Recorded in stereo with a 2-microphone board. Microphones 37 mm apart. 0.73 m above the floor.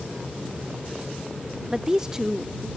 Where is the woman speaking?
20° right (ahead or behind).